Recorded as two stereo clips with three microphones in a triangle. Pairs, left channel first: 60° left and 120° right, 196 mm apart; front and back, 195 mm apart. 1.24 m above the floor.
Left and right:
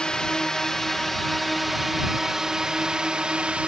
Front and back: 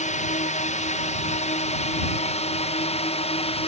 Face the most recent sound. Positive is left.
turn(degrees=-40)